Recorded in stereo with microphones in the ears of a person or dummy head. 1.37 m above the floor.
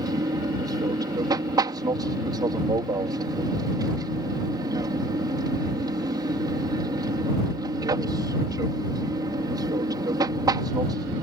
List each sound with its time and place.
0.0 s an aircraft: 20° right (ahead or behind)